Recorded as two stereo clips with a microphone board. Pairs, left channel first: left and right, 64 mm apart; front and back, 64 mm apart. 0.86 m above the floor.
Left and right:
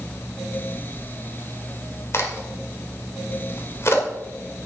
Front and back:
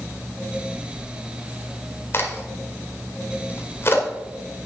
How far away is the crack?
About 1.8 m.